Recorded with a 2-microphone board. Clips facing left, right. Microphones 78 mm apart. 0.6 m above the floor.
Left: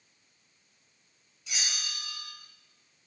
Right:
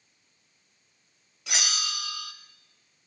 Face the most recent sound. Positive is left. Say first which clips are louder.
# right 6 dB
turn(degrees=-70)  # may be behind; listen again after turning